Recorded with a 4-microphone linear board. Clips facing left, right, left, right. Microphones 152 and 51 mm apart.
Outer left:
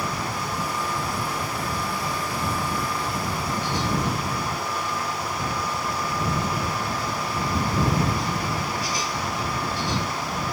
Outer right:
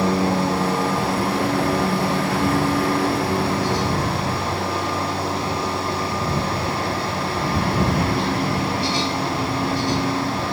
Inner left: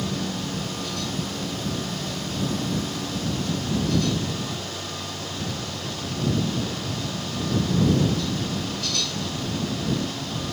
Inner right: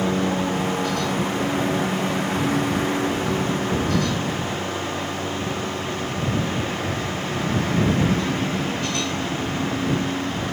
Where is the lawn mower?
70° right (ahead or behind); by 10.5 s 65° right (ahead or behind).